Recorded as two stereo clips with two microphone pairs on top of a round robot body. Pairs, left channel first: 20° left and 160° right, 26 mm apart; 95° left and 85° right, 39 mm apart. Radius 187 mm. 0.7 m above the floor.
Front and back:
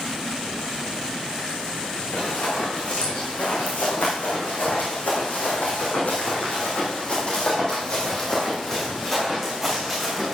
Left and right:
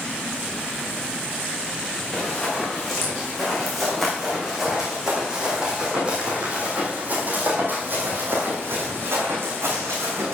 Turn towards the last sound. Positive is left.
turn(degrees=-75)